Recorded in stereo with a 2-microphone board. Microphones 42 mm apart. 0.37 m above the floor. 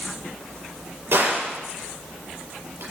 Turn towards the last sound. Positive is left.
turn(degrees=-60)  # may be behind; listen again after turning